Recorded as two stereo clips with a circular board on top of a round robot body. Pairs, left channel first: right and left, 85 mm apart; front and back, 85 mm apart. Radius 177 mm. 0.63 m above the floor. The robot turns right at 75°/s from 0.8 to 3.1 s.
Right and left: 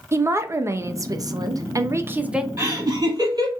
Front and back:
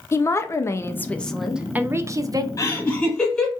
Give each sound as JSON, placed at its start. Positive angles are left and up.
{"t": 0.1, "sound": "a woman speaking", "azimuth_deg": 45, "distance_m": 0.7}
{"t": 2.6, "sound": "laughter", "azimuth_deg": 35, "distance_m": 1.6}